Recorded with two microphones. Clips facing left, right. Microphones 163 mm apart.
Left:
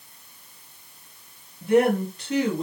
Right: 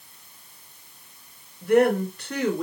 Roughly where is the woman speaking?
Left.